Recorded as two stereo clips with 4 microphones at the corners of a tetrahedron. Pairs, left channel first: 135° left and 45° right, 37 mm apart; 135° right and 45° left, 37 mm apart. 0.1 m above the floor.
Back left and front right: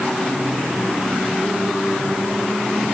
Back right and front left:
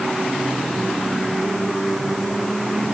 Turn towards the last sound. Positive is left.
No sound to turn to.